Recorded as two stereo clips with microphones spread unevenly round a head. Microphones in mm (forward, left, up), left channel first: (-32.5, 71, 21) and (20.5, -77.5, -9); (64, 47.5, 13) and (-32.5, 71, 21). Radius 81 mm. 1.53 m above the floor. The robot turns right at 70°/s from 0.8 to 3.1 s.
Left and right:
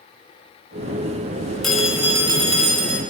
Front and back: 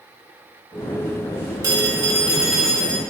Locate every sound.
1.6 s a phone ringing: 175° right, 1.0 m; by 3.0 s 80° right, 1.0 m